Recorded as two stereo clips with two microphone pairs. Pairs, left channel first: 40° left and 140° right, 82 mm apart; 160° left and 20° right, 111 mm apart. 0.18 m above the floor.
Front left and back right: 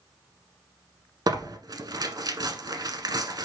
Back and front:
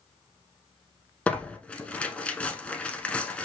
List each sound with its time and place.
1.3 s tearing paper: 125° right, 0.9 m